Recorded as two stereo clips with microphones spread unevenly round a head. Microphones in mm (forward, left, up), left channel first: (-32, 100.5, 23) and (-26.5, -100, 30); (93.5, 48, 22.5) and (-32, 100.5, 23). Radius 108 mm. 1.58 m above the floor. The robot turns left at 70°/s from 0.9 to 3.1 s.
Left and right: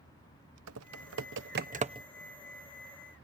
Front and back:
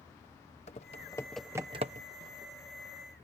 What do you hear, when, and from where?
0.7 s typing on a keyboard: 80° right; by 2.1 s 160° right